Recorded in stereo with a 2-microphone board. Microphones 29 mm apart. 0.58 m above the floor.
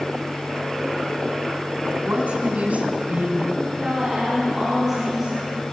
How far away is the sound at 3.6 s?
About 8 m.